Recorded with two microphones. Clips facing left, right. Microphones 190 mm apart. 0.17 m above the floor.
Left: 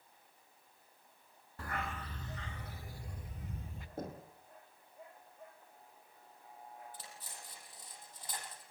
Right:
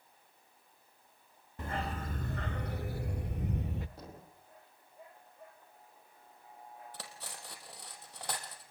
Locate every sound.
1.6 s a dog barking: 20° right (ahead or behind), 0.6 m; by 3.9 s 75° right (ahead or behind), 1.6 m
4.0 s knocking: 50° left (ahead or behind), 6 m
6.9 s cutlery clinking: 80° right, 3.5 m